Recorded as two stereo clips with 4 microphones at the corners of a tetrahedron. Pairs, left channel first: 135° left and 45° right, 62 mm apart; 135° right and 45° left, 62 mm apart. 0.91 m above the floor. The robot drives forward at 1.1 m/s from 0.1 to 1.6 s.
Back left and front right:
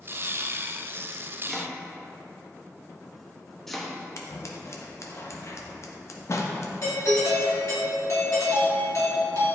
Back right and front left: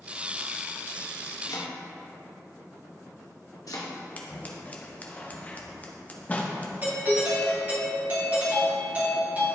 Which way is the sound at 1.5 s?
135° right.